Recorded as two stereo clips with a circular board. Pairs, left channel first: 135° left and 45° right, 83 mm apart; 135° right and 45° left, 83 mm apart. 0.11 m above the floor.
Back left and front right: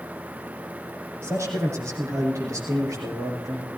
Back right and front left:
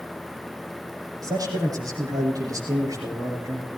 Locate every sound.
1.2 s a man speaking: 10° left, 5 m; by 3.7 s straight ahead, 6 m